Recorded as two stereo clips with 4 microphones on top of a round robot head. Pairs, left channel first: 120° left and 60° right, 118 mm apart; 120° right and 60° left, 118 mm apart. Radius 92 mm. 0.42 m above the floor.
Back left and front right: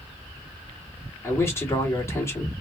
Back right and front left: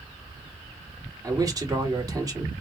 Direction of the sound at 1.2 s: 80° left.